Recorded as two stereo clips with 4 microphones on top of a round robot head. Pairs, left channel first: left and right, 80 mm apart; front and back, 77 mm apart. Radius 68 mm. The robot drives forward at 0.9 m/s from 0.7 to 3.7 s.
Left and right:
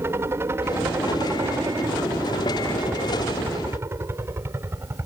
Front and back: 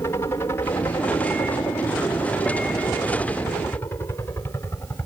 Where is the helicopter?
45° right; by 5.1 s 50° right.